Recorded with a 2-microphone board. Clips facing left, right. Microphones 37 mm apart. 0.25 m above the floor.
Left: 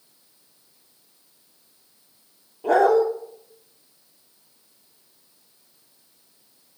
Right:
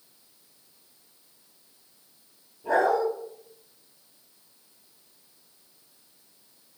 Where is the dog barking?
65° left (ahead or behind), 2.5 m.